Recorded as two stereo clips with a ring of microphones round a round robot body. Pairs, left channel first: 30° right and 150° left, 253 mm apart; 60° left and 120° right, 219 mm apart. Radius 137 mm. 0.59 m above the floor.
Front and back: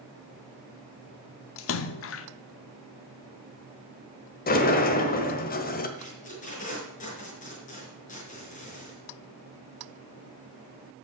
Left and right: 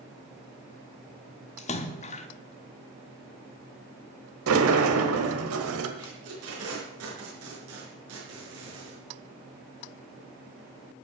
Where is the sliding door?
85° right, 1.2 m.